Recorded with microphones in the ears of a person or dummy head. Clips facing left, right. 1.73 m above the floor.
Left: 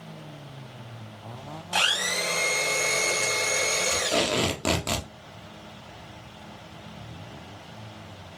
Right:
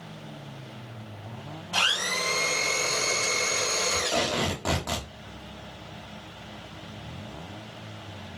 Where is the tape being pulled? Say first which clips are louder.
Left 3 dB; 40° left (ahead or behind), 0.8 m.